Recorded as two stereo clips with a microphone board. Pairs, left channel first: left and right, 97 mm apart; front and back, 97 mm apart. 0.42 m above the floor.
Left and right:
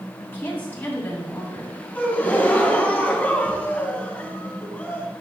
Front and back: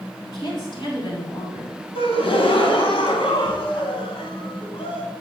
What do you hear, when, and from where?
0.2 s a woman speaking: 20° left, 3.5 m
1.9 s a gasp: 15° left, 1.2 m